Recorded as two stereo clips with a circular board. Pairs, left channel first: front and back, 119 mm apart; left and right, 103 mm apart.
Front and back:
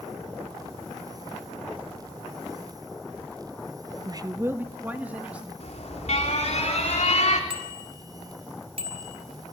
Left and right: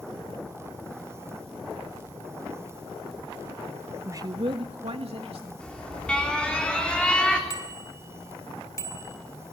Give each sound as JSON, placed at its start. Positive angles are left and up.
{"t": 4.0, "sound": "a man speaking", "azimuth_deg": -150, "distance_m": 0.6}
{"t": 5.6, "sound": "an alarm", "azimuth_deg": 10, "distance_m": 3.5}
{"t": 7.5, "sound": "a bicycle bell", "azimuth_deg": 145, "distance_m": 2.5}